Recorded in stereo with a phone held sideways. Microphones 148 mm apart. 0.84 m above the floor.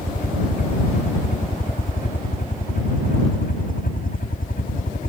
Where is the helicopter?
75° left (ahead or behind); by 5.1 s 70° left (ahead or behind).